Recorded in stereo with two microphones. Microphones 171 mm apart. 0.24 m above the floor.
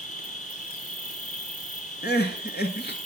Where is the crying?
75° left (ahead or behind), 1.3 m.